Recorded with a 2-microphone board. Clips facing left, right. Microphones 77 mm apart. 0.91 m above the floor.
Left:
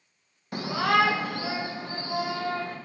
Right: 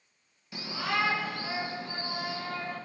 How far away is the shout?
About 0.6 m.